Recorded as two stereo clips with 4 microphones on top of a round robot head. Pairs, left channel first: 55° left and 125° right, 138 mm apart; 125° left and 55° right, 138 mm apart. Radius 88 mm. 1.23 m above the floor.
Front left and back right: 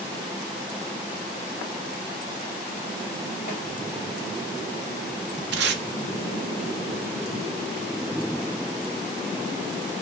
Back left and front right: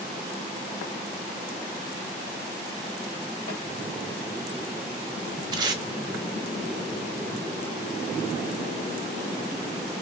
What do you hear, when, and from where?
3.5 s a snare drum: 100° left, 1.9 m
5.5 s tape being pulled: 115° right, 0.5 m